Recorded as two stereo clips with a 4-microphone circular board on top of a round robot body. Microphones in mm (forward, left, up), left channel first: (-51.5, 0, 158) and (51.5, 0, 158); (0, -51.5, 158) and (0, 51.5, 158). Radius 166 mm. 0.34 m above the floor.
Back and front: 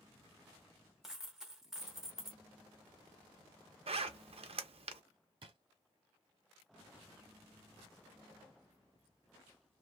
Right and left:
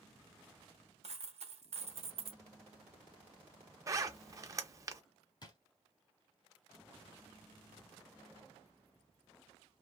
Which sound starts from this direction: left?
A dropped coin, at 1.0 s.